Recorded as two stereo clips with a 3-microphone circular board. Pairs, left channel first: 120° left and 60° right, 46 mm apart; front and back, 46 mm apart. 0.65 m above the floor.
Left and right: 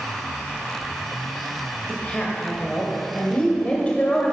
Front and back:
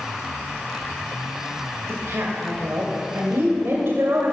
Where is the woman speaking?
Straight behind, 2 m.